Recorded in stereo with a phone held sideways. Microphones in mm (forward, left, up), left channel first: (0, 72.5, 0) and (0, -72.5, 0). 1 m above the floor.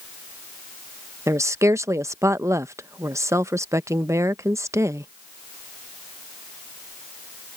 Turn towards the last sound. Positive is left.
turn(degrees=-20)  # may be behind; listen again after turning